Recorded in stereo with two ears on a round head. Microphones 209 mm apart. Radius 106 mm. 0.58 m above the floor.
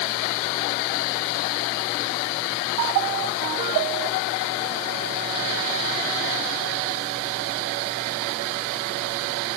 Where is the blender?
I don't hear a blender.